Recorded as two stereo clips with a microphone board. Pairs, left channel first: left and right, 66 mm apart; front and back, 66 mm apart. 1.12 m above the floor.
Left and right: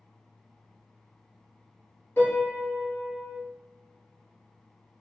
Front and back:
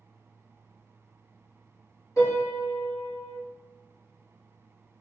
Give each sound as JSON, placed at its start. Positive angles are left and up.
{"t": 2.2, "sound": "a piano", "azimuth_deg": 35, "distance_m": 1.7}